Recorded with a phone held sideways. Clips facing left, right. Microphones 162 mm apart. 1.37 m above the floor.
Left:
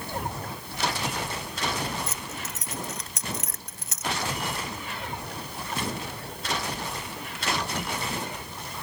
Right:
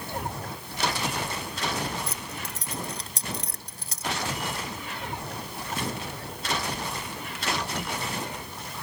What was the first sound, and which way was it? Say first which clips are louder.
Keys jangling: even; 35° right (ahead or behind).